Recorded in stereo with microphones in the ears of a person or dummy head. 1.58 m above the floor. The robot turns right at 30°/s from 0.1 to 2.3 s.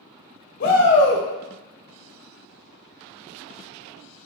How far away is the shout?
About 0.6 m.